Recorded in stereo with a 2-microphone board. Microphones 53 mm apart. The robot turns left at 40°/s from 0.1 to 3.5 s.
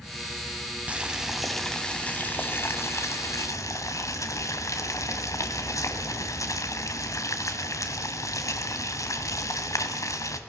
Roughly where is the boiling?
Behind right.